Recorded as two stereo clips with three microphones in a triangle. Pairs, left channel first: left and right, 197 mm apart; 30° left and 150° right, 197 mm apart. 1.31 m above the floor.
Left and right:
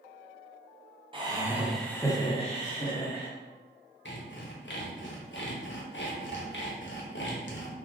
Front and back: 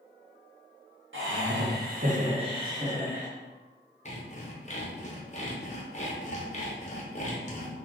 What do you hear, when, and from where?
1.1 s laughter: 155° right, 0.9 m; by 3.3 s 125° left, 1.1 m
4.0 s sawing: 80° left, 0.6 m